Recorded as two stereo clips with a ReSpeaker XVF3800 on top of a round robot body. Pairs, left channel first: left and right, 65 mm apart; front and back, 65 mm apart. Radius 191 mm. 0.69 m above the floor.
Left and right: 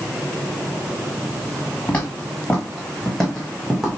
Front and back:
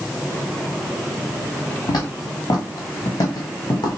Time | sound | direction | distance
1.9 | footsteps | 20° left | 3 m